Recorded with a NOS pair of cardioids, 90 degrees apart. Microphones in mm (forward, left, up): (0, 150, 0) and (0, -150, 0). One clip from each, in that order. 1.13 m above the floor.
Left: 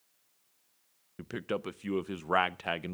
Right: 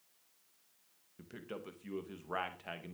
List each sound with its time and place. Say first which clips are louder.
1.2 s a man speaking: left 11 dB; 60° left, 0.7 m